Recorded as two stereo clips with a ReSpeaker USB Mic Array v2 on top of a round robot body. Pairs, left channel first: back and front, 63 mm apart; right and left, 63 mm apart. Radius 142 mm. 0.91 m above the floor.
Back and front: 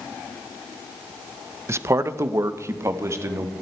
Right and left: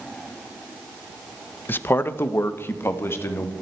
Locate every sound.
1.7 s a man speaking: 35° right, 0.8 m; by 3.5 s 40° right, 2 m